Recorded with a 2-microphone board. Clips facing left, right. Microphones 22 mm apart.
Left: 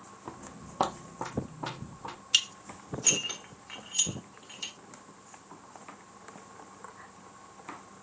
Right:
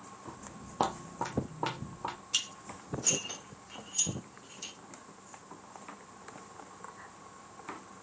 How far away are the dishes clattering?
About 0.7 m.